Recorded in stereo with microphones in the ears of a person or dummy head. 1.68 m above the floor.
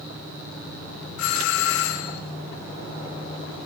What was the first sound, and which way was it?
A doorbell, 75° left (ahead or behind).